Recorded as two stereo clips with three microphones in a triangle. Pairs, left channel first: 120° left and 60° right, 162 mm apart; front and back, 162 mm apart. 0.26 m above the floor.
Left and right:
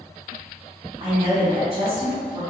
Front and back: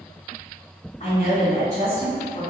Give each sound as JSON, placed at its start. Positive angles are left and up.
{"t": 1.0, "sound": "a woman speaking", "azimuth_deg": -20, "distance_m": 1.9}